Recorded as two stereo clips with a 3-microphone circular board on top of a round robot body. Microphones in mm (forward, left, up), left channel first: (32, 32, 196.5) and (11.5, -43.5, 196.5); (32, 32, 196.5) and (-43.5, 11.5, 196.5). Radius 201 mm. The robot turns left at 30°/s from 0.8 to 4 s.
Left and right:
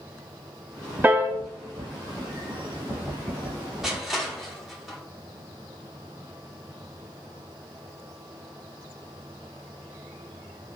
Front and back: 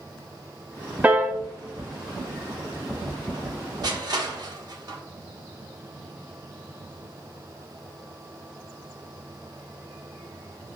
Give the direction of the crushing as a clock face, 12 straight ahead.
6 o'clock.